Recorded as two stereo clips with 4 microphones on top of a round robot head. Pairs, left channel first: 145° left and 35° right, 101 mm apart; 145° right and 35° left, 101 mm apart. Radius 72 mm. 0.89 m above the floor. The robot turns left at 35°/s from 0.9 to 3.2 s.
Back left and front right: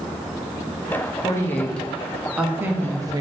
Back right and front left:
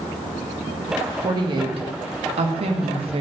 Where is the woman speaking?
80° left, 1.1 m; by 3.2 s 15° left, 1.1 m.